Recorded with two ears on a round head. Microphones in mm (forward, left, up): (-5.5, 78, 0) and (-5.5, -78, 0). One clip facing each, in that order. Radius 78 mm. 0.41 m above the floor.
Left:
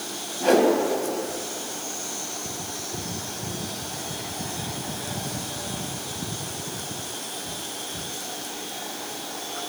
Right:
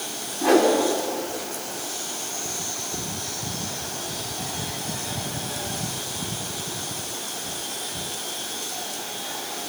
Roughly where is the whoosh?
Left.